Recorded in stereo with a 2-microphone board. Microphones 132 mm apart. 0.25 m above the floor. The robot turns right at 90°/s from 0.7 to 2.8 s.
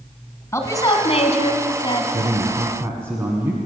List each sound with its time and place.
0.5 s a woman speaking: 25° left, 1.9 m; by 2.0 s 150° left, 1.9 m
2.1 s a man speaking: 80° right, 1.8 m; by 3.6 s 20° right, 1.8 m